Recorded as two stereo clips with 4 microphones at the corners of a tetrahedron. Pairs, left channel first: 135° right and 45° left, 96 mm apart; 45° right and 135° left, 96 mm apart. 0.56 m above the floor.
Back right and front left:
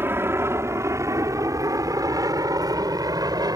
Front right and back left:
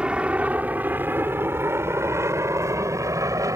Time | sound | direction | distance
0.0 | an aircraft | 70° left | ?